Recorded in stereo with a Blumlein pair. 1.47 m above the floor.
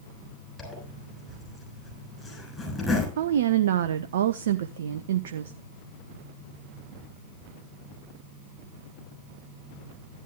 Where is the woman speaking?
60° right, 0.8 m.